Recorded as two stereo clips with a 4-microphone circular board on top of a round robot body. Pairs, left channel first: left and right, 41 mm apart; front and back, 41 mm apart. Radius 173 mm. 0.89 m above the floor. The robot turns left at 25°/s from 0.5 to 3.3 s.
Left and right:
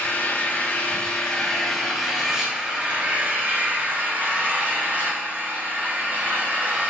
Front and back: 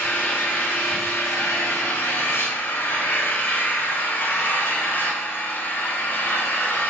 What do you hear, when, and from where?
0.0 s an engine running: 35° left, 5 m; by 6.9 s 35° right, 5 m